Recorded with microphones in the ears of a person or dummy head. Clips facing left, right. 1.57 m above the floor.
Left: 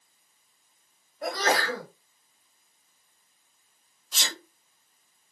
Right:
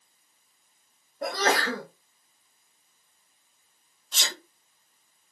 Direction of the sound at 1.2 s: 35° right (ahead or behind).